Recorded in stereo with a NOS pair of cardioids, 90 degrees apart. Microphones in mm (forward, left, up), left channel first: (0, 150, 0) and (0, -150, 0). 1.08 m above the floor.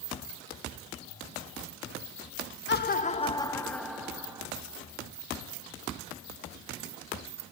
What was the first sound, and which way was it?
Laughter, 40° left.